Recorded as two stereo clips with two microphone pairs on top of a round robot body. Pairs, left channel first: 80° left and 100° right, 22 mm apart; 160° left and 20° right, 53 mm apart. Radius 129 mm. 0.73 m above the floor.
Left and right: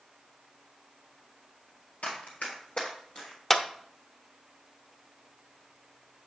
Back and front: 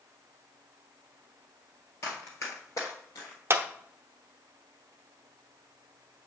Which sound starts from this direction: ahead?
A clap, at 3.5 s.